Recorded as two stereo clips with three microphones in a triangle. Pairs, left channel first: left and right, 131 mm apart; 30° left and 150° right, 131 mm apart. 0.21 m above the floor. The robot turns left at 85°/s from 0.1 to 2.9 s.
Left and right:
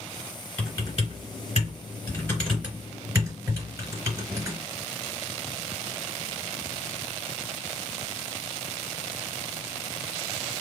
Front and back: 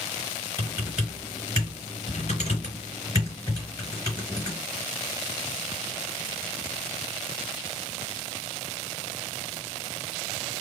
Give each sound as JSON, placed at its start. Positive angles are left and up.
{"t": 0.6, "sound": "typing on a keyboard", "azimuth_deg": 165, "distance_m": 3.0}